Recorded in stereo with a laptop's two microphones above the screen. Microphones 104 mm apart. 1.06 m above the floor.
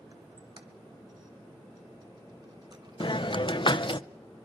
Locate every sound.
0.1 s a squeak: 45° right (ahead or behind), 1.8 m
3.0 s a hiss: 50° left (ahead or behind), 0.6 m